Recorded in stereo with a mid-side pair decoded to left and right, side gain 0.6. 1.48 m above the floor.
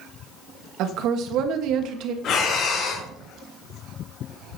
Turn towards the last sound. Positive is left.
turn(degrees=60)